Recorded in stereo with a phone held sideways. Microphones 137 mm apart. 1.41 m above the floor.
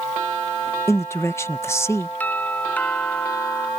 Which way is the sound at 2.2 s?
10° left (ahead or behind).